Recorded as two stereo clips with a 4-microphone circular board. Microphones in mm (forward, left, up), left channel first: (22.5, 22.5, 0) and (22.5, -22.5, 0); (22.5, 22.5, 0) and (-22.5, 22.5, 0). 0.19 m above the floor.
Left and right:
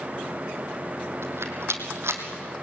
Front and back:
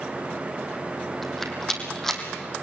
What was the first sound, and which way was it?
A rattle, 85° right.